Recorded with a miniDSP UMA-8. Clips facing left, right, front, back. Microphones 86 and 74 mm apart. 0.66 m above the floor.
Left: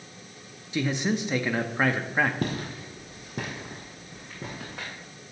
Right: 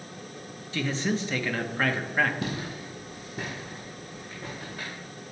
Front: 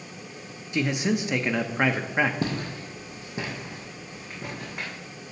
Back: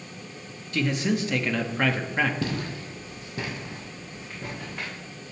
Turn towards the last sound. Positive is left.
turn(degrees=75)